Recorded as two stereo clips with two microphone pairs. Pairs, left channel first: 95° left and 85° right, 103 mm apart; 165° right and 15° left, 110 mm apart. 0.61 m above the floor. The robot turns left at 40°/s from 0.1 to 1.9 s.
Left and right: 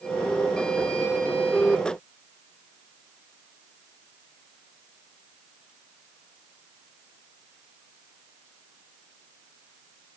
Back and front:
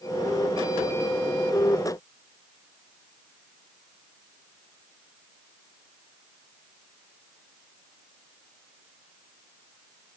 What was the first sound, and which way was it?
Only background noise.